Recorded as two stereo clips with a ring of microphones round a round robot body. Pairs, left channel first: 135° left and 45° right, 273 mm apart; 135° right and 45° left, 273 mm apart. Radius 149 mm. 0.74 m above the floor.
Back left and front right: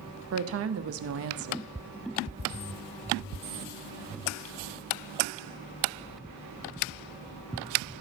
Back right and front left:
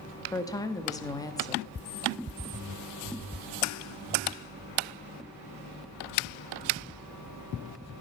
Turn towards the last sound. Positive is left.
turn(degrees=100)